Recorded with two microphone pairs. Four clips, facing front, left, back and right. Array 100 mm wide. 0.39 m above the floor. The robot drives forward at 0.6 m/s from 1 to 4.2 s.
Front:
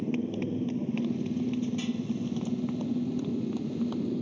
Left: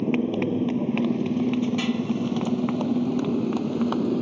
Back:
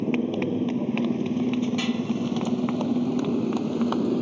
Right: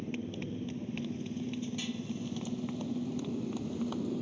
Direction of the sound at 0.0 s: 130° left.